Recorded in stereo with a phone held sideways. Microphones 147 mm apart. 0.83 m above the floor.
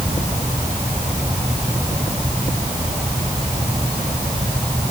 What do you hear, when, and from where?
Only background noise.